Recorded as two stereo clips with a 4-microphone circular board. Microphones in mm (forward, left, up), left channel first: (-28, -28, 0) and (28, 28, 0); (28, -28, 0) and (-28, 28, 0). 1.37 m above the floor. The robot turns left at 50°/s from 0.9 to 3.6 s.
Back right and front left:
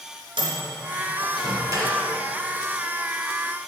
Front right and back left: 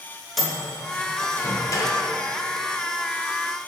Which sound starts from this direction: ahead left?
A microwave, at 0.4 s.